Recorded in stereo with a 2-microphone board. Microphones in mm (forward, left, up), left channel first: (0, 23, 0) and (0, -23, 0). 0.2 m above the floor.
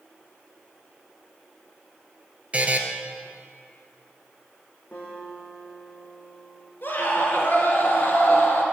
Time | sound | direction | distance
2.5 | a buzzer | 30° right (ahead or behind) | 1.0 m
4.9 | a guitar | 30° left (ahead or behind) | 4 m
6.8 | a scream | 50° left (ahead or behind) | 2.5 m